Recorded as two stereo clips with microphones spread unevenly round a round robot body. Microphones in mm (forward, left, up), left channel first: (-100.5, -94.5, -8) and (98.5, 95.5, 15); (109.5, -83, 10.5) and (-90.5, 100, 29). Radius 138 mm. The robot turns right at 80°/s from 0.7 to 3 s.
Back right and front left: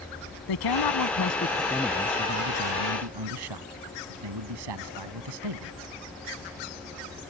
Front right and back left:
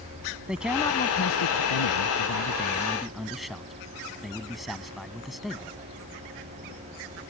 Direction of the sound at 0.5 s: 135° right.